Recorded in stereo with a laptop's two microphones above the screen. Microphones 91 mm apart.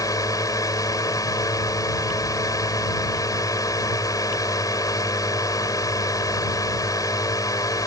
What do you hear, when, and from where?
0.0 s a drone: 40° left (ahead or behind)